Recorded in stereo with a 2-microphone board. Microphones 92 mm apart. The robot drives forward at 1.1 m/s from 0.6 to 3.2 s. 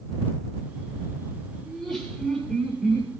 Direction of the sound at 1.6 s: 5° left (ahead or behind).